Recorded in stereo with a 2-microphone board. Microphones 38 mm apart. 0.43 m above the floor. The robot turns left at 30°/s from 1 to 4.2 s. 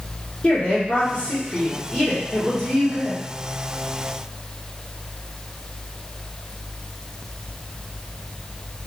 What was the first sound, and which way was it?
A woman speaking, 75° left.